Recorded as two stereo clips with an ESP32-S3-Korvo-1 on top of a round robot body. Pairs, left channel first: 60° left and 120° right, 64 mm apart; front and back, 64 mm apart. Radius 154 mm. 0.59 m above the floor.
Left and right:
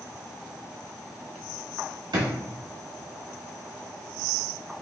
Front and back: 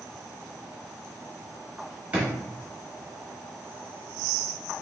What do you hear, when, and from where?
2.1 s a drawer: 110° right, 1.3 m